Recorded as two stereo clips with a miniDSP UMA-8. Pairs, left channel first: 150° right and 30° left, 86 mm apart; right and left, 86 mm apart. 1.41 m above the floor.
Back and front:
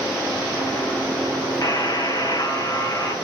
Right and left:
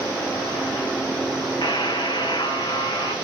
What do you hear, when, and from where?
1.6 s a buzzer: 110° right, 1.0 m